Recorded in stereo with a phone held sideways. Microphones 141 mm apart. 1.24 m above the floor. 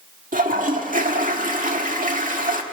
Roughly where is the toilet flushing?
Right.